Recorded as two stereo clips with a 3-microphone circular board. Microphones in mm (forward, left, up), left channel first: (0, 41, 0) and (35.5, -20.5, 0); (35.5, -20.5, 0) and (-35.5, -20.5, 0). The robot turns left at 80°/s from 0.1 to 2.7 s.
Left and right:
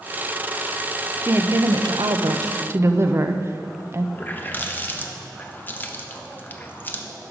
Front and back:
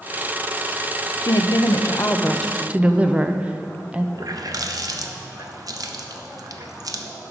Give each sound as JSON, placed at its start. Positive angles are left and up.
{"t": 1.2, "sound": "a woman speaking", "azimuth_deg": 10, "distance_m": 0.6}
{"t": 4.2, "sound": "a running tap", "azimuth_deg": 180, "distance_m": 0.7}